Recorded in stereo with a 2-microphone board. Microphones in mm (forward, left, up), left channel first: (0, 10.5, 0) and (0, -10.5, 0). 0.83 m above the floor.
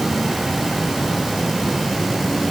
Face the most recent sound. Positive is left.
No sound to turn to.